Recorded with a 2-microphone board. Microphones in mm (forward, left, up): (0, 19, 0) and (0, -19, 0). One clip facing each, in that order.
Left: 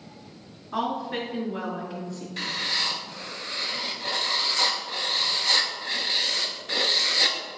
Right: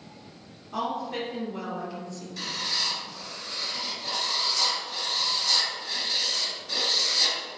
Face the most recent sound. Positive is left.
turn(degrees=45)  # may be behind; listen again after turning